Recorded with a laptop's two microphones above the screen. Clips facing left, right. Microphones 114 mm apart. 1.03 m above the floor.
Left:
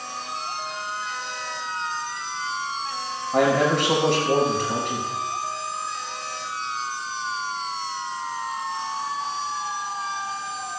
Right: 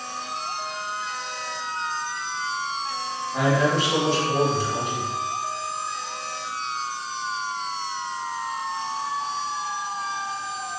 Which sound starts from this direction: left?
A man speaking, at 3.3 s.